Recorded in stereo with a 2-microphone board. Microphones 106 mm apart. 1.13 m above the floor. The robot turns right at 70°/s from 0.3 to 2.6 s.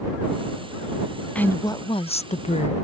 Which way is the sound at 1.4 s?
10° left.